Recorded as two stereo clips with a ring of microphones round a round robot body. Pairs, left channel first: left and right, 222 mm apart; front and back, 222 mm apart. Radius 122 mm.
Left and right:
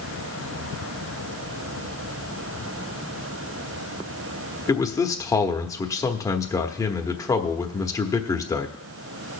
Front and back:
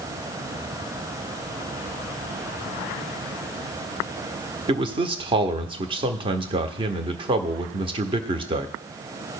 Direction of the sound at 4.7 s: 145° left.